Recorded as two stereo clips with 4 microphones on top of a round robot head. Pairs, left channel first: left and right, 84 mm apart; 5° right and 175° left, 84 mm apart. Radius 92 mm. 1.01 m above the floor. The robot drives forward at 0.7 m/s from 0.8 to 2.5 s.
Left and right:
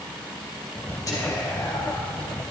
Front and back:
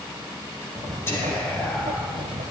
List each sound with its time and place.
1.1 s whispering: 50° left, 1.3 m; by 2.1 s 95° left, 1.1 m